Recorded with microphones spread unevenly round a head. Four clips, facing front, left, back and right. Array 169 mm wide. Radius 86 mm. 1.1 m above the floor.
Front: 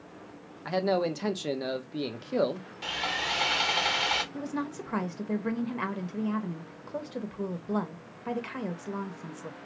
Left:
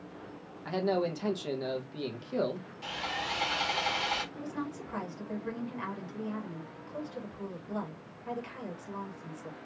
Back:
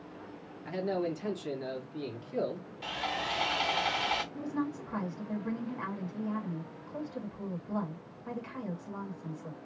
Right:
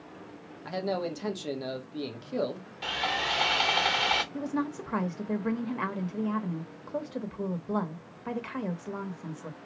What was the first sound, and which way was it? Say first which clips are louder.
A man speaking: left 1 dB, front 5 dB; 5° right.